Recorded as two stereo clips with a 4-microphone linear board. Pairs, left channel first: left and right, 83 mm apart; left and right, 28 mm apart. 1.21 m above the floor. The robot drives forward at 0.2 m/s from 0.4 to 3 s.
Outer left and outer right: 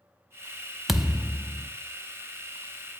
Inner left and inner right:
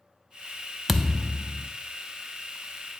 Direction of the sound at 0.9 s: 5° right (ahead or behind).